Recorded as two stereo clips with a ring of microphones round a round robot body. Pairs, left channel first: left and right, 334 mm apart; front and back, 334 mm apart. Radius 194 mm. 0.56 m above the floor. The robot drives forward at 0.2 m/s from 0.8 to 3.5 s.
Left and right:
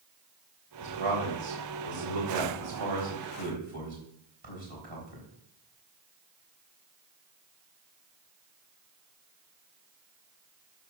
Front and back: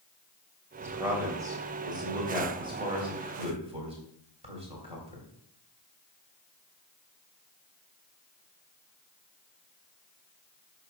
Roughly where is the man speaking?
Right.